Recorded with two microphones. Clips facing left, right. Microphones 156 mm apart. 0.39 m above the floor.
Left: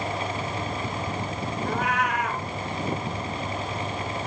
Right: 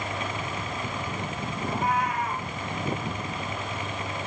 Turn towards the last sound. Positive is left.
turn(degrees=80)